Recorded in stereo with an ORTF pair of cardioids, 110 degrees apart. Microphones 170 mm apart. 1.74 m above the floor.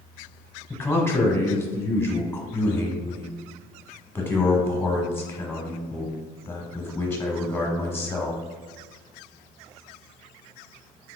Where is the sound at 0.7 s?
15° left, 0.8 m.